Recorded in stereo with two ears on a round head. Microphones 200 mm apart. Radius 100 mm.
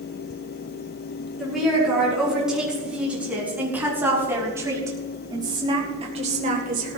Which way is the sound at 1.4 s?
Centre (ahead or behind).